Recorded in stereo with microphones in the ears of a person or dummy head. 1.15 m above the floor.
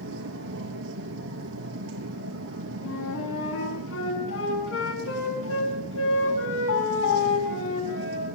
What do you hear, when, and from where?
0.0 s a machine running: 80° right, 5.5 m
2.8 s a flute: 75° left (ahead or behind), 9.5 m